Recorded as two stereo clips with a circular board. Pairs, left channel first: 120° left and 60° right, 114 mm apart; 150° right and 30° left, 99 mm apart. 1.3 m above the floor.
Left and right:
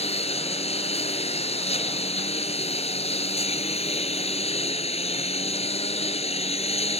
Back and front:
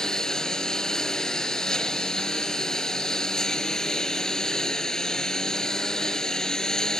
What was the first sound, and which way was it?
A lawn mower, 125° left.